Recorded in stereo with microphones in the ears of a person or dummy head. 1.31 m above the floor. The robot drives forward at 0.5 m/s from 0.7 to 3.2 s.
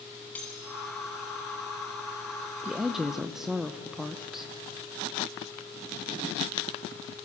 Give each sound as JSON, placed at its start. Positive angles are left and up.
{"t": 0.3, "sound": "cutlery clinking", "side_deg": 5, "distance_m": 6.5}
{"t": 2.6, "sound": "a woman speaking", "side_deg": -5, "distance_m": 0.9}